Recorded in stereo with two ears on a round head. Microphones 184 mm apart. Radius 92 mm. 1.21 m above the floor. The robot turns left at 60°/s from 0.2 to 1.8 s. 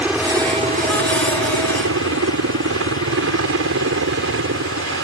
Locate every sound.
0.0 s a helicopter: 5° right (ahead or behind); by 5.0 s 65° right (ahead or behind)